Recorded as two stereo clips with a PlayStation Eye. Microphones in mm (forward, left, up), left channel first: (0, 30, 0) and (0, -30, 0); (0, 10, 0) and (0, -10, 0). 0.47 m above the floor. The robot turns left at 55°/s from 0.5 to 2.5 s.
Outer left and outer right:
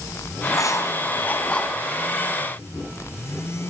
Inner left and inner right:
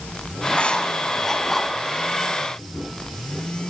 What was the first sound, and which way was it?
Writing, 70° left (ahead or behind).